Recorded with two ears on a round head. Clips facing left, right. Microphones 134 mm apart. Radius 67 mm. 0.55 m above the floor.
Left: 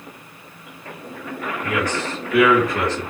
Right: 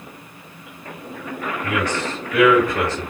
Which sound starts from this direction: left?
A man speaking, at 1.6 s.